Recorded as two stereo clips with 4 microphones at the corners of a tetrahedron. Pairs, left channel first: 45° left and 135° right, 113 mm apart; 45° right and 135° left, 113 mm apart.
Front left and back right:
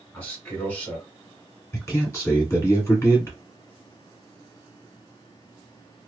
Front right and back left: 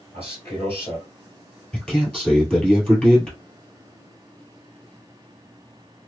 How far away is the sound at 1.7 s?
About 1.5 m.